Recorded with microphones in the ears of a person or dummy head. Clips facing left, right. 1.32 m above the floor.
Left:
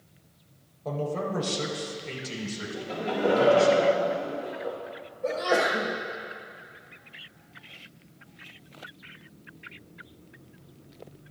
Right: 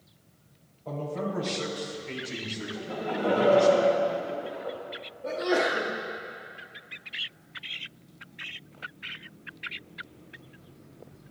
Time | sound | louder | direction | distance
0.8 | a man speaking | left 2 dB | 75° left (ahead or behind) | 4 m
2.7 | laughter | left 2 dB | 40° left (ahead or behind) | 2.5 m
5.2 | a sneeze | left 1 dB | 85° left | 5.5 m